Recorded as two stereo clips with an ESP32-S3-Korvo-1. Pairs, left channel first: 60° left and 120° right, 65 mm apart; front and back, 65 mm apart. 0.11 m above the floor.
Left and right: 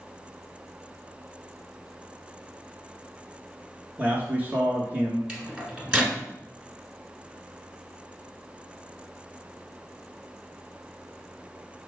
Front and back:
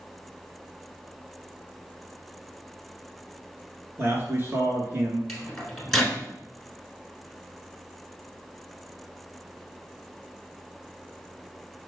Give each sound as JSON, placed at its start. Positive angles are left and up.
{"t": 4.0, "sound": "a man speaking", "azimuth_deg": -165, "distance_m": 1.4}
{"t": 5.3, "sound": "a microwave", "azimuth_deg": -80, "distance_m": 1.3}